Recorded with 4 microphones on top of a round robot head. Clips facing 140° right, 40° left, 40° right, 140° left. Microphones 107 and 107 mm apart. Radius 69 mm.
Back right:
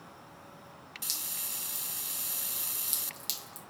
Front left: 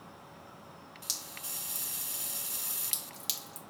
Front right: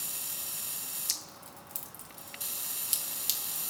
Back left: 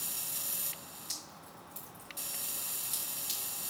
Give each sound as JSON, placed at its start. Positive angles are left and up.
{"t": 1.1, "sound": "dripping", "azimuth_deg": -45, "distance_m": 1.3}